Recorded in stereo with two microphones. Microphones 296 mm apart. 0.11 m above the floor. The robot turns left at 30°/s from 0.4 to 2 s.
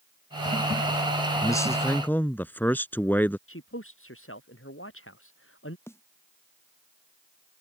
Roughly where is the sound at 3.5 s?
Left.